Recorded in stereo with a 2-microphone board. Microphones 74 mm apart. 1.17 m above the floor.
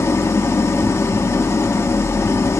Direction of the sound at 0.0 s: 35° left (ahead or behind).